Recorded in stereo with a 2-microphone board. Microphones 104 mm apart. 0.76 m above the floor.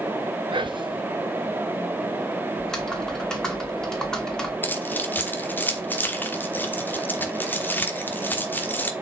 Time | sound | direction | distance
0.5 | whispering | 50° right (ahead or behind) | 0.6 m
2.6 | typing on a keyboard | 5° left (ahead or behind) | 2 m
4.6 | keys jangling | 20° left (ahead or behind) | 1.2 m